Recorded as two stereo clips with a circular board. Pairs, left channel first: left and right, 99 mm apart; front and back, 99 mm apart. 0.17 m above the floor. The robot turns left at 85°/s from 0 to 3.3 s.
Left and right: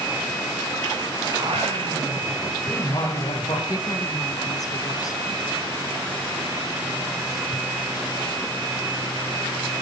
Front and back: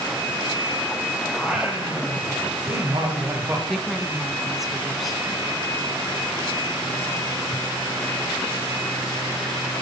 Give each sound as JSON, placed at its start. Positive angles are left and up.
{"t": 1.3, "sound": "singing", "azimuth_deg": -80, "distance_m": 7.0}
{"t": 3.7, "sound": "a woman speaking", "azimuth_deg": 95, "distance_m": 2.0}